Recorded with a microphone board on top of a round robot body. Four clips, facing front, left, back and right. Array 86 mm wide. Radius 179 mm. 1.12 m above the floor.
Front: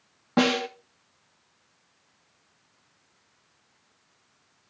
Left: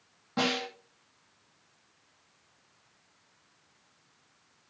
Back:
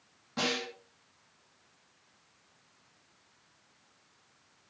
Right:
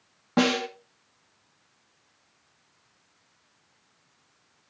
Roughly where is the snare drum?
Ahead right.